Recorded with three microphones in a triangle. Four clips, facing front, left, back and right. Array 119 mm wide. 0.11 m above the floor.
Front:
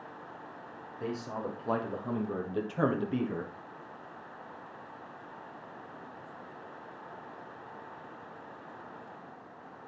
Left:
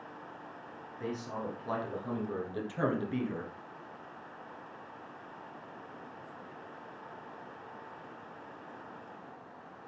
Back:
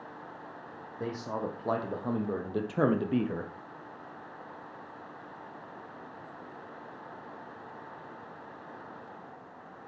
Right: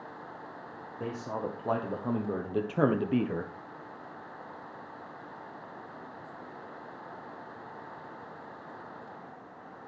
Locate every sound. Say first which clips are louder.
1.0 s a man speaking: right 3 dB, back 2 dB; 140° right, 4.5 m; by 3.5 s 115° right, 1.7 m